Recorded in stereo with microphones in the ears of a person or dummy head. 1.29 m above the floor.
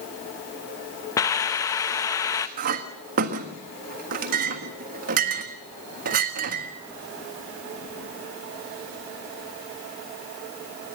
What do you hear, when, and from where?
1.2 s a hiss: 10° left (ahead or behind), 0.6 m
2.6 s a clink: 50° right (ahead or behind), 1.4 m